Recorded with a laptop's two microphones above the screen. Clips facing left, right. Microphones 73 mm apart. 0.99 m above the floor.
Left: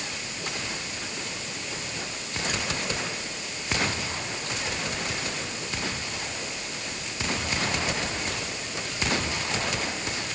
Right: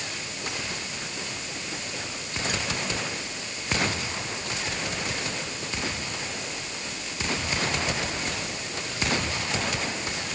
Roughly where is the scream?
I don't hear a scream.